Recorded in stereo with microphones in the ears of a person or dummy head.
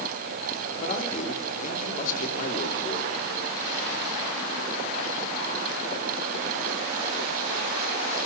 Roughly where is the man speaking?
Left.